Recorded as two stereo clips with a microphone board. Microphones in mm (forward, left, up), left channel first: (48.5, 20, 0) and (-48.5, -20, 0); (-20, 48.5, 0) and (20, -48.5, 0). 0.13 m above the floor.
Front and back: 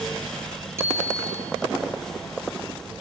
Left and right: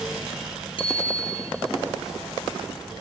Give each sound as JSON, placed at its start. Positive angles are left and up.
{"t": 0.8, "sound": "a bicycle bell", "azimuth_deg": 140, "distance_m": 2.0}